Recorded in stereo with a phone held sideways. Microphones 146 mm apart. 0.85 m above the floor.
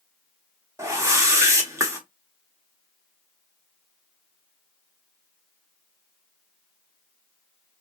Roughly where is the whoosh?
Right.